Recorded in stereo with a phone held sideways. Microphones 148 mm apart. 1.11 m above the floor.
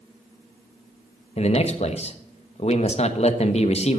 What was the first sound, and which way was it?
A man speaking, 45° left (ahead or behind).